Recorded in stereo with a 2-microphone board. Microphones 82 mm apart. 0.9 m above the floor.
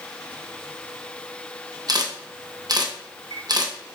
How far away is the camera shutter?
About 0.5 m.